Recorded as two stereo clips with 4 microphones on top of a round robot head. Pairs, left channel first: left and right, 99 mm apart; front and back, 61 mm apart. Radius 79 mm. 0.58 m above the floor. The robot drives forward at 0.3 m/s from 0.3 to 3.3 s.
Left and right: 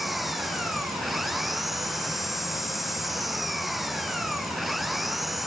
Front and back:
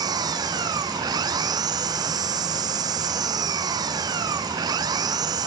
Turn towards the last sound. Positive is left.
turn(degrees=180)